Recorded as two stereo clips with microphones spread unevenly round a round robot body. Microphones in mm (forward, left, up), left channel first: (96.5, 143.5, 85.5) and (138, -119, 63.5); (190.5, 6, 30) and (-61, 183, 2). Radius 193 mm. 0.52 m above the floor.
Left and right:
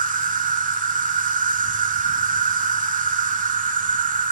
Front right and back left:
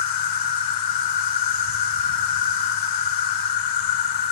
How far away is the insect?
About 0.8 m.